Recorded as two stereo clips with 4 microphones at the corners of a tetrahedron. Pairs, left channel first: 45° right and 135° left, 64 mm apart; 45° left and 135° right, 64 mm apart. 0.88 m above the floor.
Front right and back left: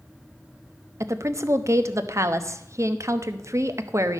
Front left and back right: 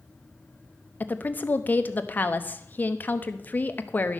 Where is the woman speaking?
105° left, 0.9 m.